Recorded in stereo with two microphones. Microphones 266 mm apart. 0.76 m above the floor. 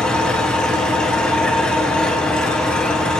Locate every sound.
0.0 s an engine running: 5° left (ahead or behind), 4.5 m